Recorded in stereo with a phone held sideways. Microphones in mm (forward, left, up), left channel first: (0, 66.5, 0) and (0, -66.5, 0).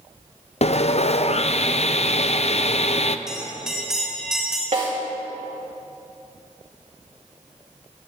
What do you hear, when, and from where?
0.6 s sawing: 50° left (ahead or behind), 0.5 m
3.3 s a bell: 5° right (ahead or behind), 4 m
4.7 s a snare drum: 60° right (ahead or behind), 3.5 m